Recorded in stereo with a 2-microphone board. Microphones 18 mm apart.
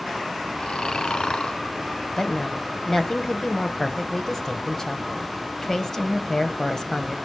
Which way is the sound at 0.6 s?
45° left (ahead or behind).